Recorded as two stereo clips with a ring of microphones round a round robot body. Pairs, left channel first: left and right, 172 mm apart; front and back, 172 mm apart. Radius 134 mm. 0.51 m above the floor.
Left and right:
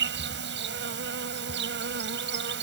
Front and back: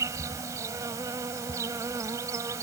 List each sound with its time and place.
0.0 s an insect: 105° right